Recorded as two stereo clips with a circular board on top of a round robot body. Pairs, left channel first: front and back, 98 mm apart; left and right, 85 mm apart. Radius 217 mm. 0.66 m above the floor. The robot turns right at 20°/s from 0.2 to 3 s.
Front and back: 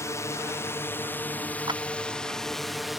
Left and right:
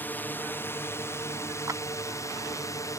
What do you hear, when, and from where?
0.0 s a drone: 35° left; by 3.0 s 90° left
1.7 s a clap: 140° right